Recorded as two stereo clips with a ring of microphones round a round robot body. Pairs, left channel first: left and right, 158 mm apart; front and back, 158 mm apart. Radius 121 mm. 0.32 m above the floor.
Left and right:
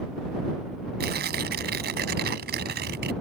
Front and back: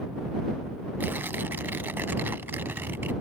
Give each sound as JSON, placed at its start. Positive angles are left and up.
{"t": 1.0, "sound": "tearing paper", "azimuth_deg": -100}